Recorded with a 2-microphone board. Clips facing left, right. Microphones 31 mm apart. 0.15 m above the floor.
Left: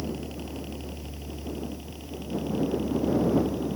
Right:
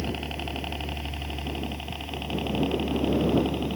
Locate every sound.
0.0 s a helicopter: 45° right (ahead or behind)